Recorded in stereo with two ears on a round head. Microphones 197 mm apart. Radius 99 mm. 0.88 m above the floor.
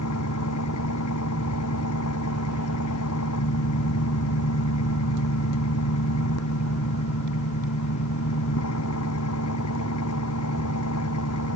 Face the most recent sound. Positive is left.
turn(degrees=75)  # may be behind; listen again after turning